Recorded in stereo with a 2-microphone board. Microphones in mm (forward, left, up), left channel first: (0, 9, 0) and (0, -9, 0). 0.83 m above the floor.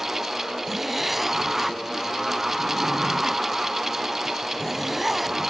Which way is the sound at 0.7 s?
5° right (ahead or behind).